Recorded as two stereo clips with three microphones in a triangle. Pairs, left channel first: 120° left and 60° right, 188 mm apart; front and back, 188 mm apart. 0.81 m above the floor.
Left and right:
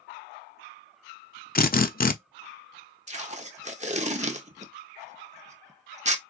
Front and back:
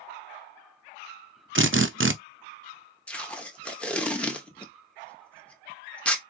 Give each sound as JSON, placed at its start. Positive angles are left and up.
{"t": 1.6, "sound": "a drill", "azimuth_deg": 165, "distance_m": 0.5}
{"t": 3.1, "sound": "tape being pulled", "azimuth_deg": -80, "distance_m": 0.7}